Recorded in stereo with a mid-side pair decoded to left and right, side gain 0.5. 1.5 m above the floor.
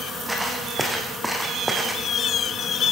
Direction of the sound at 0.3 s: 5° right.